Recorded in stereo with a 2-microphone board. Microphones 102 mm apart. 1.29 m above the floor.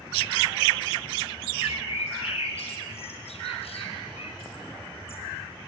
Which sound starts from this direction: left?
A bird, at 1.6 s.